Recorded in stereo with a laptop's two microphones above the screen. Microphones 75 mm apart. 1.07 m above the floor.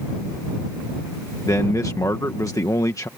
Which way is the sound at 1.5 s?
45° left (ahead or behind).